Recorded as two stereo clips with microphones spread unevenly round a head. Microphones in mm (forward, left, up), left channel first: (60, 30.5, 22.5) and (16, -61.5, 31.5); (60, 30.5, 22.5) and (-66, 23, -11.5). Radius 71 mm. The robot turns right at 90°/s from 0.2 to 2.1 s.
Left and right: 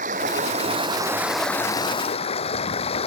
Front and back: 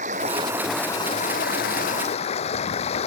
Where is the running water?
130° right; by 3.1 s 40° left.